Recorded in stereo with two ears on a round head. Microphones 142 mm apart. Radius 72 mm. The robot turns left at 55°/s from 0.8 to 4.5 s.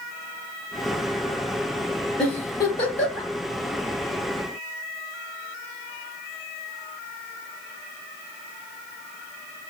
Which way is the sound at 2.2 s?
5° left (ahead or behind).